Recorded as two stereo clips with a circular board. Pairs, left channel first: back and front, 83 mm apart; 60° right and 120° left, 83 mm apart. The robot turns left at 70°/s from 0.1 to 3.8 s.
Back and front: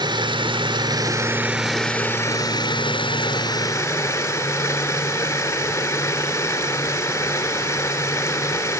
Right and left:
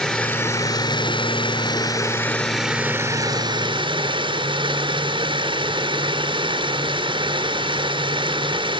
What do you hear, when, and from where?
0.0 s running water: 20° left, 3 m; by 8.8 s 120° left, 3 m